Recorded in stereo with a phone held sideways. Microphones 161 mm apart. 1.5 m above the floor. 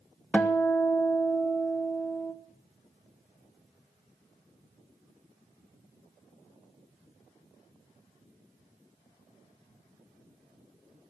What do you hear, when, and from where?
0.3 s a guitar: 10° left (ahead or behind), 1.4 m